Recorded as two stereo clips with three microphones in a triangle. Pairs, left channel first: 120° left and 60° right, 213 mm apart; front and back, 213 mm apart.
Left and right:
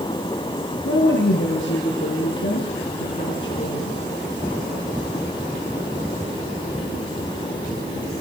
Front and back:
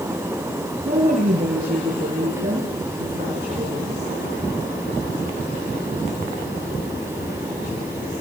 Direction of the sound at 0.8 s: 135° left.